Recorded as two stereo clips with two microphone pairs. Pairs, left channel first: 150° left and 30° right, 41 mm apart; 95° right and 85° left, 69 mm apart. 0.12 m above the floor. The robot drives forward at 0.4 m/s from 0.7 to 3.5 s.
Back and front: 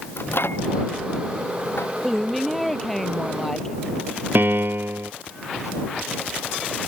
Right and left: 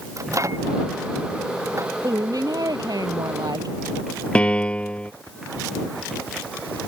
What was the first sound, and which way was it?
A microwave, 130° left.